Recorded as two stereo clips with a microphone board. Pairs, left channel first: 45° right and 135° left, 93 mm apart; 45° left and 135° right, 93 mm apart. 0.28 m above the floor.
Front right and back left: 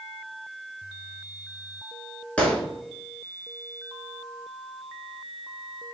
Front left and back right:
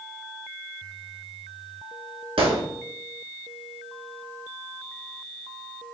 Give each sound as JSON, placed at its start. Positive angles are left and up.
{"t": 2.4, "sound": "a gunshot", "azimuth_deg": -120, "distance_m": 1.6}